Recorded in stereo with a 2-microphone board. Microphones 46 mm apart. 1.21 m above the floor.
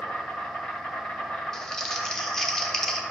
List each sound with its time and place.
0.0 s an insect: 30° left (ahead or behind), 1.4 m
1.5 s crumpling: 10° left (ahead or behind), 0.8 m